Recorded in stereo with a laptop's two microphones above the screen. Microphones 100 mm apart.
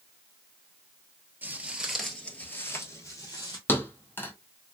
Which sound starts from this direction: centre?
Footsteps, at 1.4 s.